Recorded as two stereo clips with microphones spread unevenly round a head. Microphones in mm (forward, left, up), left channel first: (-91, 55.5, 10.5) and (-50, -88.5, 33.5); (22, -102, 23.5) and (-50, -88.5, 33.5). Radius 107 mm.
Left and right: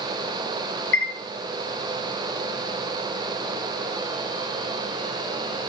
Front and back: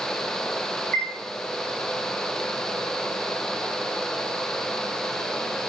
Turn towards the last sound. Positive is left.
turn(degrees=70)